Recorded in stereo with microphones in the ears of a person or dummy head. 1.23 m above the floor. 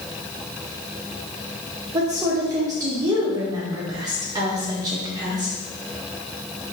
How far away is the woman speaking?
About 1.2 m.